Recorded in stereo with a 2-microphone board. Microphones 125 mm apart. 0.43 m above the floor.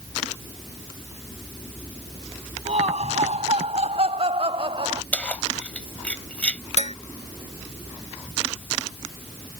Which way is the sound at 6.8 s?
60° left (ahead or behind).